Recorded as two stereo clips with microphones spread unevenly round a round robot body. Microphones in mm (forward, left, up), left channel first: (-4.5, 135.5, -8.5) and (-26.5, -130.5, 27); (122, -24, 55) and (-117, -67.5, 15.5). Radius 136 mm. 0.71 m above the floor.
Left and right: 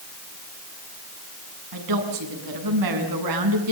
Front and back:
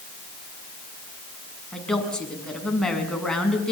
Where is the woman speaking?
75° right, 6.5 m.